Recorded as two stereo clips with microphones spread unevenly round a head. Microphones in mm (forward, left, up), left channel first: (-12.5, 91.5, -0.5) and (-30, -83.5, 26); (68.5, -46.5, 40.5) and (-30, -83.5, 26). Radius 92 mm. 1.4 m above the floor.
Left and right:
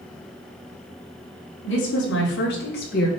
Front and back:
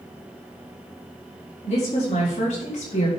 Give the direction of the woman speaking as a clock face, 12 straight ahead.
10 o'clock.